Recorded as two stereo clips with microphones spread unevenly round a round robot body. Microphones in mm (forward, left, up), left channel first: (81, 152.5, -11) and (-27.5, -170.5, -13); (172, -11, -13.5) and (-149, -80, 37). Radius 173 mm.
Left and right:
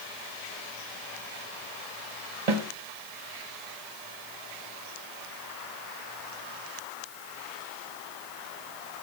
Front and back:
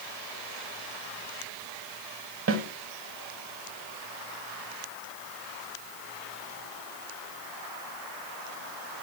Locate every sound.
2.5 s a snare drum: 115° right, 1.1 m